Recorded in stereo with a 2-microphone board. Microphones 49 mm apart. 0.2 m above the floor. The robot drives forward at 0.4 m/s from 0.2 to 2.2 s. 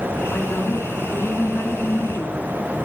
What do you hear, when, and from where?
0.3 s a woman speaking: 35° left (ahead or behind), 3 m; by 2.5 s 40° left (ahead or behind), 2.5 m